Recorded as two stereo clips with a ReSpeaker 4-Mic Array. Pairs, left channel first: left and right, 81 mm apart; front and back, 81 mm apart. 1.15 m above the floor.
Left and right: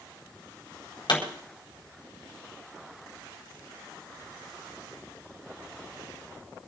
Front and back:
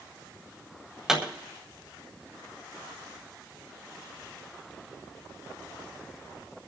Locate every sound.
1.1 s a pop: 100° left, 4.5 m